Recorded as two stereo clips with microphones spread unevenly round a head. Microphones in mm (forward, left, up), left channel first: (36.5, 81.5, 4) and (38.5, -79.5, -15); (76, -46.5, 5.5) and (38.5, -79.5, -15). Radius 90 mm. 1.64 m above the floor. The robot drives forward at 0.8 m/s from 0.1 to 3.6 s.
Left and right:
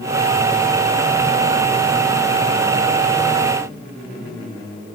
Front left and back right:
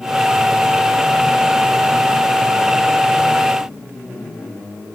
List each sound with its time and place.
Only background noise.